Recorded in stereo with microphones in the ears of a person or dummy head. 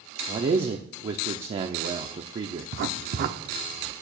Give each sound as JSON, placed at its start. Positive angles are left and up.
{"t": 0.3, "sound": "a man speaking", "side_deg": -30, "distance_m": 0.6}
{"t": 2.7, "sound": "writing", "side_deg": -50, "distance_m": 0.7}